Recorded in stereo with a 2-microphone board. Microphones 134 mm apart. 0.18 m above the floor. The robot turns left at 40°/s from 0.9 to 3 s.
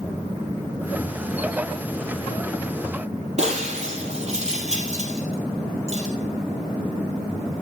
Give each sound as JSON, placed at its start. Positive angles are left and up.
{"t": 3.4, "sound": "breaking glass", "side_deg": -50, "distance_m": 3.5}